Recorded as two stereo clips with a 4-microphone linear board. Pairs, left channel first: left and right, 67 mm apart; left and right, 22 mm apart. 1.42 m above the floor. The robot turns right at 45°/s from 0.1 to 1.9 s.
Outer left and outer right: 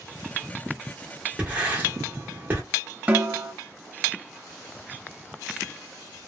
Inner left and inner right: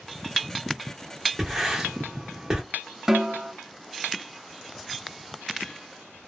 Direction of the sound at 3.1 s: 20° right (ahead or behind).